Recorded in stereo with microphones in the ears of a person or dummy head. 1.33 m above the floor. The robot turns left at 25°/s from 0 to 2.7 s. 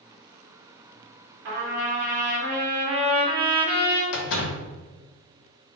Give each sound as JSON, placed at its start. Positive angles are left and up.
{"t": 1.4, "sound": "a trumpet", "azimuth_deg": -110, "distance_m": 1.8}
{"t": 4.1, "sound": "a door slam", "side_deg": 75, "distance_m": 0.8}